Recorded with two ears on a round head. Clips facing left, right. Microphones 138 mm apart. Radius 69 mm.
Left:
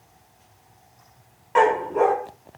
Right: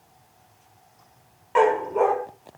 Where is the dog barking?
Centre (ahead or behind), 2.0 m.